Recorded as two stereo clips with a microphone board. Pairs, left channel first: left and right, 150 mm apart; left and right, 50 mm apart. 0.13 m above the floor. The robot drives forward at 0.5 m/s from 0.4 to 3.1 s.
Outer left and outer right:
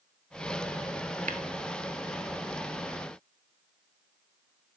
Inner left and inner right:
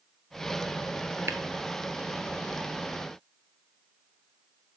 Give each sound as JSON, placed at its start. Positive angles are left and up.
{"t": 1.3, "sound": "tapping", "side_deg": -65, "distance_m": 0.7}